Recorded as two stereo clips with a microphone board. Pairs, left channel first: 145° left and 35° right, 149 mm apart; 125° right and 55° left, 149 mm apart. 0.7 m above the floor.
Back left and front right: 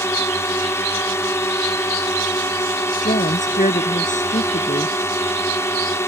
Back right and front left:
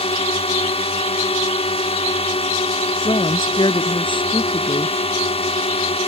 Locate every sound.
0.0 s a drone: 150° right
3.0 s a woman speaking: straight behind